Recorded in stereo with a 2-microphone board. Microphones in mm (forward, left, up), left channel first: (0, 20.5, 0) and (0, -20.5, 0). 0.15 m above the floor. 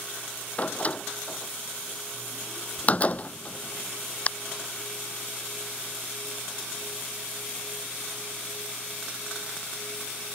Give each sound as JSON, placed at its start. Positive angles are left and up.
{"t": 0.6, "sound": "a door slam", "side_deg": 35}